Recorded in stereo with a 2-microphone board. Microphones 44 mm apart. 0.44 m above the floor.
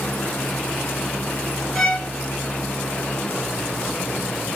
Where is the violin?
15° left (ahead or behind), 1.9 m.